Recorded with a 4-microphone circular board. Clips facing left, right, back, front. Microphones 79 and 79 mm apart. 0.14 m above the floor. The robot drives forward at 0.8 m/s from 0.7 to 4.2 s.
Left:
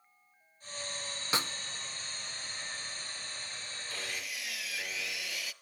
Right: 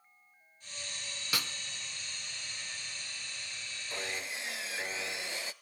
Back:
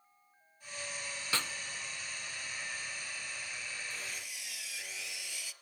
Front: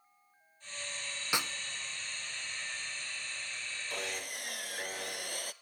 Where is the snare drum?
60° left, 0.6 m; by 1.5 s 85° left, 0.6 m.